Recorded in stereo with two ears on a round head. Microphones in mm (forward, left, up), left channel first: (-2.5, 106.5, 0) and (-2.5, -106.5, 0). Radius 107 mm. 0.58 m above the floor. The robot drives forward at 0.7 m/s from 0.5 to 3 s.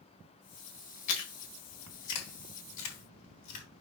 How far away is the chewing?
About 3.5 m.